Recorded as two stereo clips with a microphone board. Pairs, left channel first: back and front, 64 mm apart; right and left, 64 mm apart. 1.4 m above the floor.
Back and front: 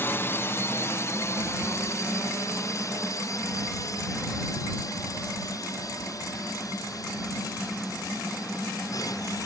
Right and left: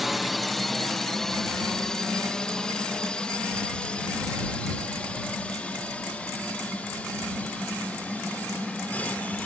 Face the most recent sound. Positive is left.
turn(degrees=-160)